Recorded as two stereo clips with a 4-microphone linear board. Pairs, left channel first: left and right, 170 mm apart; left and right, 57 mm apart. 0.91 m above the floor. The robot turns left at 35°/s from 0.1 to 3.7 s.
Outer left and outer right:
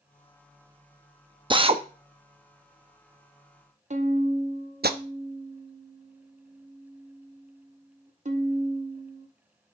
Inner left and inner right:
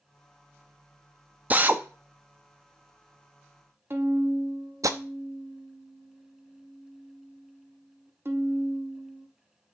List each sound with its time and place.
1.5 s a drill: 30° right (ahead or behind), 0.7 m; by 4.9 s 75° right (ahead or behind), 0.7 m
3.9 s a violin: 45° right (ahead or behind), 0.9 m